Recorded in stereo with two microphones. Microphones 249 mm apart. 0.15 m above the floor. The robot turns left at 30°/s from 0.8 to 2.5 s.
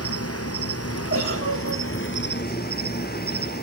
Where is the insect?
95° left, 1.0 m; by 3.6 s 45° left, 1.0 m.